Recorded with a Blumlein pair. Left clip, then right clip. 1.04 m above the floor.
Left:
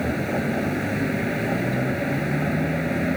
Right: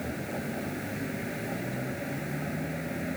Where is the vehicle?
65° left.